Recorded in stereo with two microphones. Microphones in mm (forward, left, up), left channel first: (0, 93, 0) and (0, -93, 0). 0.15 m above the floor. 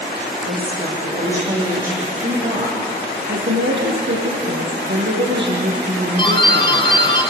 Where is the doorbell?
25° left (ahead or behind), 3 m.